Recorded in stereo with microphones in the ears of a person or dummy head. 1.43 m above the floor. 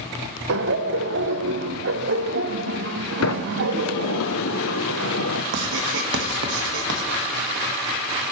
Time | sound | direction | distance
0.5 | laughter | 55° right (ahead or behind) | 0.7 m
3.2 | a sliding door | 80° left | 0.7 m
5.5 | writing | 75° right (ahead or behind) | 1.5 m